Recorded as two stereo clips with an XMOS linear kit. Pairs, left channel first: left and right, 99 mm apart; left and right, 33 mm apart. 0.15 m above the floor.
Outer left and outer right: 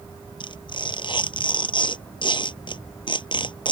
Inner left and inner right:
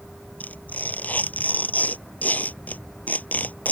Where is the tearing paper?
55° left (ahead or behind).